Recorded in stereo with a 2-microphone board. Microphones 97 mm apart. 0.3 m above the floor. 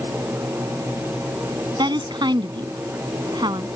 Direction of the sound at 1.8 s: 50° right (ahead or behind).